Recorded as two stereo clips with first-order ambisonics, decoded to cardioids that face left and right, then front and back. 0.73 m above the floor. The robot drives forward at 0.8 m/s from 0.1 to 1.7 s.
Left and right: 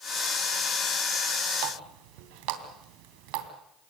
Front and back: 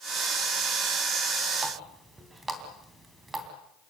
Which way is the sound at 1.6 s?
100° right.